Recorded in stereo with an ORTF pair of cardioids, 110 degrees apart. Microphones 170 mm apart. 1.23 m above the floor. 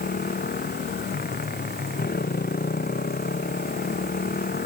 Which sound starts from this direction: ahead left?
A motorcycle, at 0.0 s.